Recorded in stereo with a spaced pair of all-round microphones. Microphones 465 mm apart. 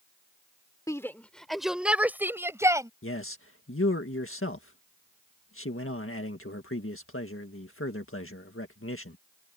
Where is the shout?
5° left (ahead or behind); by 2.9 s 5° right (ahead or behind).